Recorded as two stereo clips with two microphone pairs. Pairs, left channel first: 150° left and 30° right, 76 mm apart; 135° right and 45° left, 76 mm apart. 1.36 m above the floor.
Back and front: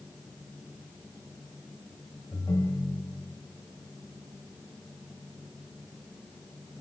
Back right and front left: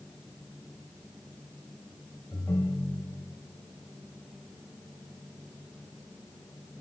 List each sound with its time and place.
2.3 s a ringtone: straight behind, 4.5 m